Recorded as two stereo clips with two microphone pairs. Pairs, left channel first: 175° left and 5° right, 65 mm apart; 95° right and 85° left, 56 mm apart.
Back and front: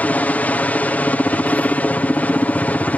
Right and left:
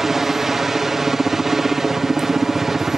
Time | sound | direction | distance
0.0 | a helicopter | 160° left | ?